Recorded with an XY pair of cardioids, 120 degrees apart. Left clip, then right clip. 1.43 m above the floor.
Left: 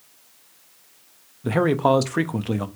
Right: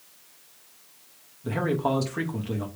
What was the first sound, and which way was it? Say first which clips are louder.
A man speaking: left 7 dB; 50° left.